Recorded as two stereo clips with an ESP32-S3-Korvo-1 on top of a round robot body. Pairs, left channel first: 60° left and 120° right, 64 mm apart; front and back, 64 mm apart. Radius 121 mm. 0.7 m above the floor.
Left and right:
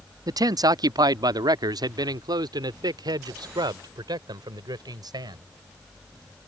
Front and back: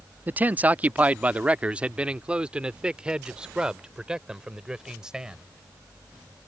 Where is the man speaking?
120° right; by 5.4 s 100° right.